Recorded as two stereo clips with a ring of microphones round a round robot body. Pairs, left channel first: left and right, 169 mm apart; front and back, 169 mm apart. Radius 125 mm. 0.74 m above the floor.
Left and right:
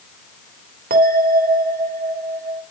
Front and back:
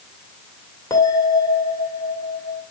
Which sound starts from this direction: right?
A bell, at 0.9 s.